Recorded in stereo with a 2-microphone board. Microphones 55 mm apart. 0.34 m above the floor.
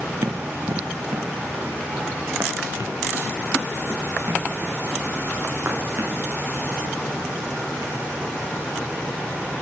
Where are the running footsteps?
65° right (ahead or behind), 1.1 m; by 6.2 s 45° right (ahead or behind), 4 m.